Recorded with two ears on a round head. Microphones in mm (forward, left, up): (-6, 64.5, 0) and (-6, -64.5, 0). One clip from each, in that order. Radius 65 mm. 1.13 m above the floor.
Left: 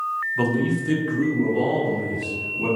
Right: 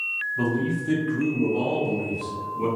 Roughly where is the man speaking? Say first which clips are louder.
Left 3 dB; left.